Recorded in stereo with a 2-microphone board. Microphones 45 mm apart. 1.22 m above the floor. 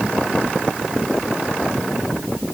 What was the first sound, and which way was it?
Only background noise.